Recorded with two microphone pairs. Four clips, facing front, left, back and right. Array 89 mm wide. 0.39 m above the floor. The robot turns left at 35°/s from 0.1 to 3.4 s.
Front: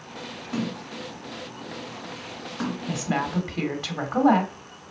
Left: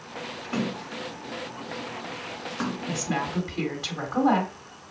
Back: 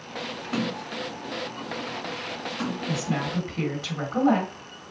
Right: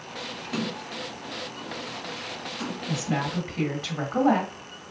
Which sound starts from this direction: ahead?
A woman speaking, at 2.9 s.